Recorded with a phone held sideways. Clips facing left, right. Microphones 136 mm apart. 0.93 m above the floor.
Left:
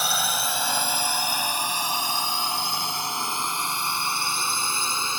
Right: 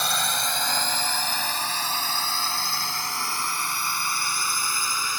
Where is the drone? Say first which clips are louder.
Left 1 dB; 5° left (ahead or behind); by 5.2 s 25° left (ahead or behind).